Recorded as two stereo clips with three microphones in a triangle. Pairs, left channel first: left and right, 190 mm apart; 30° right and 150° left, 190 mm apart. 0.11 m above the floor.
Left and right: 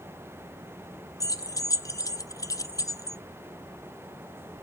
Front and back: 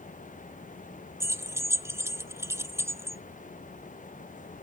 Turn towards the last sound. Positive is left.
turn(degrees=110)